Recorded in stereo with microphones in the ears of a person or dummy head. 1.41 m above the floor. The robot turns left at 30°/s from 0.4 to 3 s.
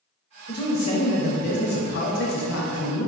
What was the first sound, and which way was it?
A man speaking, 160° left.